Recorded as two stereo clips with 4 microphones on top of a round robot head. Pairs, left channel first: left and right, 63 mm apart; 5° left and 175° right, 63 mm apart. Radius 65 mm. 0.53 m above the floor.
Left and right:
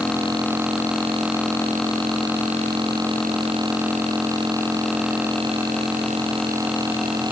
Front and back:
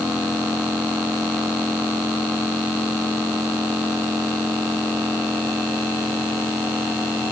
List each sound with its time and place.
Only background noise.